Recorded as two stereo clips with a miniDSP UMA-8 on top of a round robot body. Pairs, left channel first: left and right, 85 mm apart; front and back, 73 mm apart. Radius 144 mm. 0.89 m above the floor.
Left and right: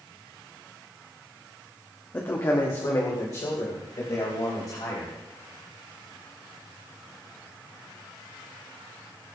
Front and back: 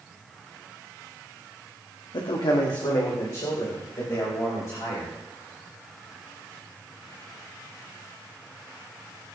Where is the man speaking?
20° left, 1.5 m; by 5.1 s 45° left, 5.5 m.